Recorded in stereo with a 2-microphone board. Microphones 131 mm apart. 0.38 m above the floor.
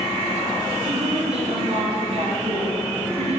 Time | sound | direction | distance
0.8 | a woman speaking | 55° right (ahead or behind) | 4.5 m